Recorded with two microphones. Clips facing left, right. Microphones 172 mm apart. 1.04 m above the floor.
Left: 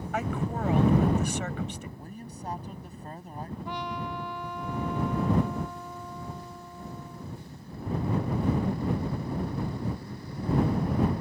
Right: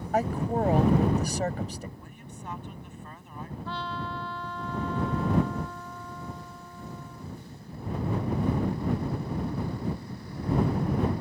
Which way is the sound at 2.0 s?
40° left (ahead or behind).